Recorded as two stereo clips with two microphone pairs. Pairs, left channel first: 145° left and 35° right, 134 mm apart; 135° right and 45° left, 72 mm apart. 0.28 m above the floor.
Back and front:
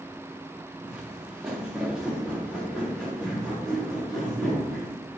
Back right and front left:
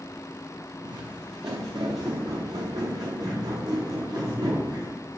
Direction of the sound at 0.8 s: 50° left.